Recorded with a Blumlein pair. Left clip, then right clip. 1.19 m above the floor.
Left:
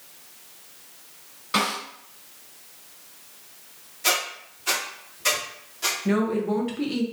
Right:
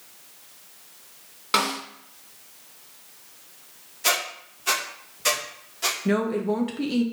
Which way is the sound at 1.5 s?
30° right.